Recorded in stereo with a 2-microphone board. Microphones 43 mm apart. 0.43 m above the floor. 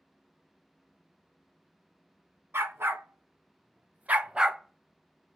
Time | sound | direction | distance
2.5 | a dog barking | 70° right (ahead or behind) | 1.3 m